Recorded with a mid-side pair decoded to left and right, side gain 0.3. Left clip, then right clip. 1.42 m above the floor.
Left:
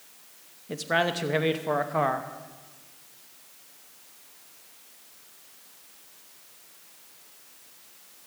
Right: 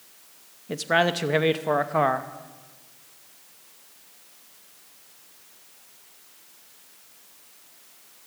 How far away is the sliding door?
No sliding door in this recording.